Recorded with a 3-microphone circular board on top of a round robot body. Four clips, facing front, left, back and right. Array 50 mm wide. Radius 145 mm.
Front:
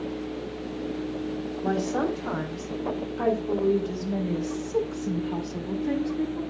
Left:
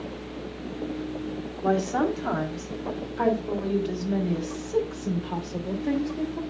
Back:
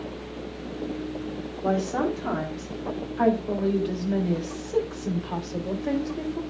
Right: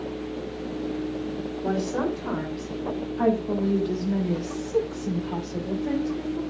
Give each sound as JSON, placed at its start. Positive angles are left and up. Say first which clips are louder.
{"t": 1.6, "sound": "a woman speaking", "louder": "left 3 dB, back 2 dB", "azimuth_deg": 125, "distance_m": 4.0}